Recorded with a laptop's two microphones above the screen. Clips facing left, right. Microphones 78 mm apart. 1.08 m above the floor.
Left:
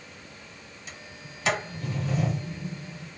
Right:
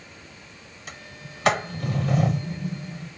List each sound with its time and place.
0.9 s a sliding door: 55° right (ahead or behind), 0.6 m